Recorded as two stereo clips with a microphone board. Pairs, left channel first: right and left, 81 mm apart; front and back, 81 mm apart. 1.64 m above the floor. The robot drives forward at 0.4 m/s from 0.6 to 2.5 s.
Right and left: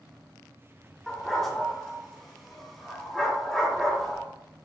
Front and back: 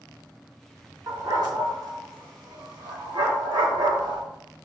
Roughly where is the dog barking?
Behind.